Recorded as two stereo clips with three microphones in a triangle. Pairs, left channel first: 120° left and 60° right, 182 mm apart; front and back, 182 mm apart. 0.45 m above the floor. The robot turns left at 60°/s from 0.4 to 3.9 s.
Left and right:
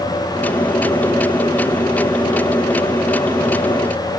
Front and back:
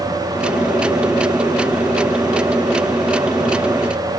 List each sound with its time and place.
Only background noise.